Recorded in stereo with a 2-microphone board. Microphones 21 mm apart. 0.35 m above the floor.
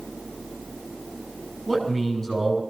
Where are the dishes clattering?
I don't hear dishes clattering.